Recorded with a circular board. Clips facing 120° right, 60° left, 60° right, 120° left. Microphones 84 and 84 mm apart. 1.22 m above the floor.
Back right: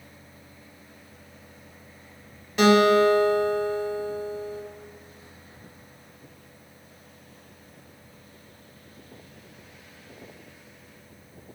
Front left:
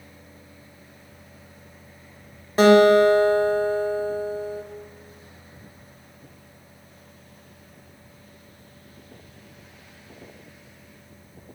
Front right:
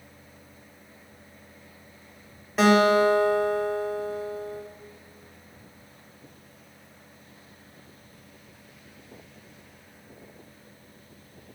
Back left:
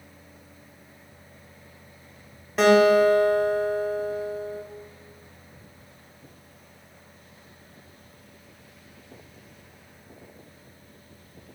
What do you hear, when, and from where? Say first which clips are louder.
2.6 s a guitar: front left 4 dB, back left 2 dB; 30° left, 0.6 m